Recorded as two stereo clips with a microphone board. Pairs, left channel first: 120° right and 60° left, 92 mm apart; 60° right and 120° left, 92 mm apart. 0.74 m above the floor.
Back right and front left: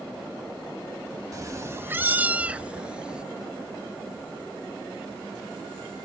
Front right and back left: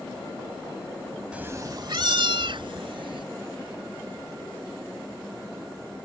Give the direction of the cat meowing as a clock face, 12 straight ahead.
10 o'clock.